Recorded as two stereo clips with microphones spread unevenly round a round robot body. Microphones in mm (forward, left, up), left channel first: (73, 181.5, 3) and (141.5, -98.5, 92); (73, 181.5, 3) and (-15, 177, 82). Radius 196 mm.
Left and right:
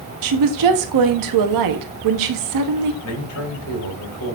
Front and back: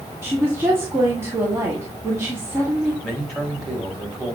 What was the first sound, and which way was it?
A woman speaking, 75° right.